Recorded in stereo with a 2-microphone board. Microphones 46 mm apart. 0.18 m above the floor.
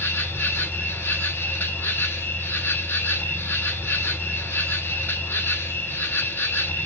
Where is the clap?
No clap in this recording.